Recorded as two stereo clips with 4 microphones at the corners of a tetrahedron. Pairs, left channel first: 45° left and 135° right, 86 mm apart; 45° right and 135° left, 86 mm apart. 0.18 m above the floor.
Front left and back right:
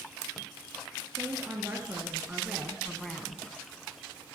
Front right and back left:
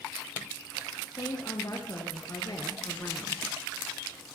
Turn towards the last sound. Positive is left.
turn(degrees=-15)